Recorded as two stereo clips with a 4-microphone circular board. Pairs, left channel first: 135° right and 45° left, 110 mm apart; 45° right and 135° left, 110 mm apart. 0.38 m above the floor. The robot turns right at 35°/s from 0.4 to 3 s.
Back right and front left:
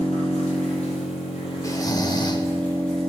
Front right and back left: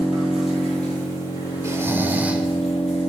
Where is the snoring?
175° right, 0.6 m; by 2.5 s 145° right, 0.6 m.